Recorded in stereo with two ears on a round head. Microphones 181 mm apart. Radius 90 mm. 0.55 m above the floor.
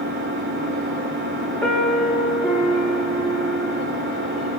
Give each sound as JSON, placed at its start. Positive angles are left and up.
{"t": 0.0, "sound": "an engine running", "side_deg": -60, "distance_m": 7.0}
{"t": 1.6, "sound": "a piano", "side_deg": 0, "distance_m": 6.5}